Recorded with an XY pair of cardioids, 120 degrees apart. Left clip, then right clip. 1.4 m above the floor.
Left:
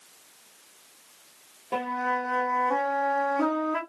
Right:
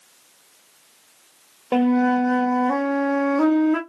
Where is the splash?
No splash in this recording.